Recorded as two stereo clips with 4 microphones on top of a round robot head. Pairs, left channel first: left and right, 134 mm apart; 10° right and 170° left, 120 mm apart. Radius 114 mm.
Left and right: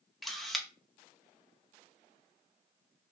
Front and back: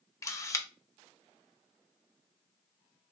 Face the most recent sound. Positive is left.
turn(degrees=0)